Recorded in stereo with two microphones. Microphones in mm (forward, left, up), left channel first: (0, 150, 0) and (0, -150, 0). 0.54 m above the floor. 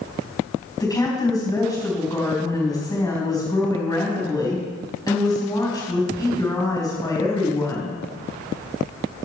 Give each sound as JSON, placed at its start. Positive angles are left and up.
{"t": 0.8, "sound": "a woman speaking", "side_deg": 10, "distance_m": 4.0}